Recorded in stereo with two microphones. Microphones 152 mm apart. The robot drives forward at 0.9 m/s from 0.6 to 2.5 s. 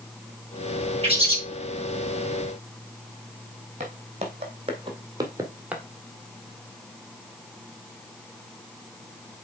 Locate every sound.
1.0 s a bird: 35° right (ahead or behind), 4 m
3.8 s footsteps: 45° right (ahead or behind), 3 m; by 5.8 s 5° right (ahead or behind), 1.4 m